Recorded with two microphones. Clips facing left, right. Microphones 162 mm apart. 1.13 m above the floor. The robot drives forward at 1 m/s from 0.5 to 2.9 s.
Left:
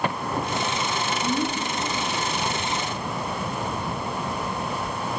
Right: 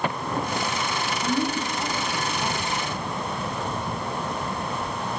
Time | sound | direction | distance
1.2 | a woman speaking | 30° right (ahead or behind) | 10 m